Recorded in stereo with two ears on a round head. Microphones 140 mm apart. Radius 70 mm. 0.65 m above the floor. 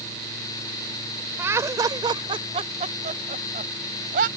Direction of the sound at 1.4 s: 15° right (ahead or behind).